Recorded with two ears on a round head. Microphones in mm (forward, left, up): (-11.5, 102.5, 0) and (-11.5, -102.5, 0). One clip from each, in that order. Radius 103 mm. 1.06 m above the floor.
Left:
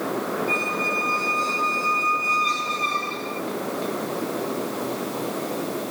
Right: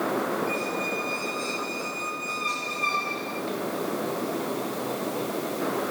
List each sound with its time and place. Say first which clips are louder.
0.5 s a squeak: left 5 dB; 15° right (ahead or behind), 3.5 m